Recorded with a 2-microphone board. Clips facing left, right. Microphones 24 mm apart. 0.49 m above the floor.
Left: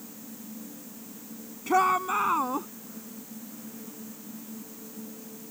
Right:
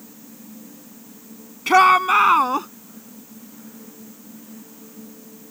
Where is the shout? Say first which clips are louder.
Right 10 dB; 75° right (ahead or behind); by 2.7 s 65° right (ahead or behind).